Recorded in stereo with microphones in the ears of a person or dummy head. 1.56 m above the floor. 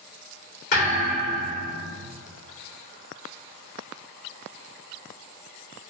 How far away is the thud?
About 1.8 m.